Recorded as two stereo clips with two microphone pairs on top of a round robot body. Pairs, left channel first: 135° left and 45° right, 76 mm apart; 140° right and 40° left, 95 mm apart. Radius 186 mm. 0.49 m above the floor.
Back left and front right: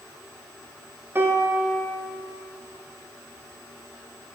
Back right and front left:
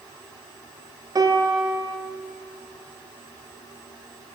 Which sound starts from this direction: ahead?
A piano, at 1.1 s.